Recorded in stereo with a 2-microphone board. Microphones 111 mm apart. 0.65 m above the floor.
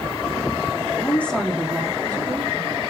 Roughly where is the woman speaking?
Left.